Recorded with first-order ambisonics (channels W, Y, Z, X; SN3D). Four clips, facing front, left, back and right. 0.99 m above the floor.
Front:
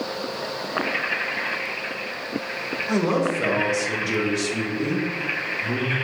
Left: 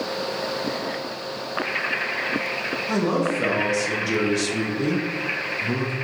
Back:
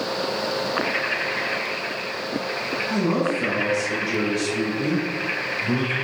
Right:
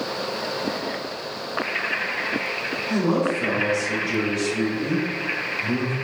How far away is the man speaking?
About 1.3 m.